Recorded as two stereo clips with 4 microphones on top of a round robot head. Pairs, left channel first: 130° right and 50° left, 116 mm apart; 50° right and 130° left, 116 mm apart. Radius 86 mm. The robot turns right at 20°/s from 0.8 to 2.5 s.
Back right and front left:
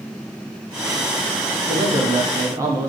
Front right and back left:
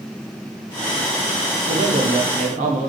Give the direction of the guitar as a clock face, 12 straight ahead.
No guitar in this recording.